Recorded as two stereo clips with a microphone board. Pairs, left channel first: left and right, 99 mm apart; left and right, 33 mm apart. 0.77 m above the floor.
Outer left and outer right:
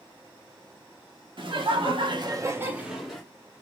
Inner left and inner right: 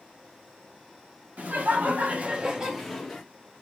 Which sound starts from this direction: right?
Laughter, at 1.4 s.